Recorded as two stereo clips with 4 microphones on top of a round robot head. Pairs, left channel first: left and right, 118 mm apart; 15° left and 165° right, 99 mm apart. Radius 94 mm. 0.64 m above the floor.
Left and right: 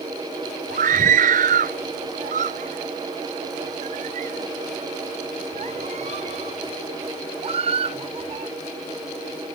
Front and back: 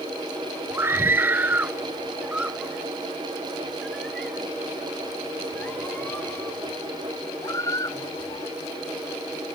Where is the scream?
95° right; by 8.6 s 50° right.